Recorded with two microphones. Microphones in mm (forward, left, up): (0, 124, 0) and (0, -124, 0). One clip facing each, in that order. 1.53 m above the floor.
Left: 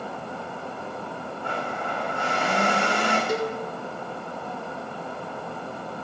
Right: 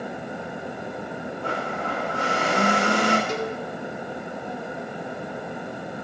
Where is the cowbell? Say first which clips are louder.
Left 2 dB; 10° left (ahead or behind), 1.2 m.